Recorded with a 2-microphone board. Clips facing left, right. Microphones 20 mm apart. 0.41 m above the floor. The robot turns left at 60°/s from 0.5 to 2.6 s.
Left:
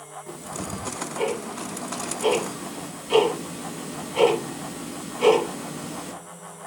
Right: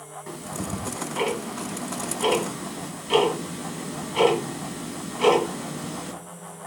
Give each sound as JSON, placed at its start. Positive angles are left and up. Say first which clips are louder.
{"t": 0.3, "sound": "ticking", "louder": "right 2 dB", "side_deg": -40, "distance_m": 5.5}